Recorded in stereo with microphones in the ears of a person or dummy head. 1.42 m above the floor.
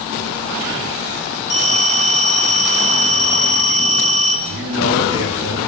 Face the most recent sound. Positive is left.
turn(degrees=-60)  # may be behind; listen again after turning